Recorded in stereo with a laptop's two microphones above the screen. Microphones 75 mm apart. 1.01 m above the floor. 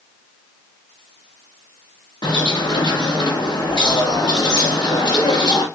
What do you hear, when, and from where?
2.2 s a bird: 70° left (ahead or behind), 0.9 m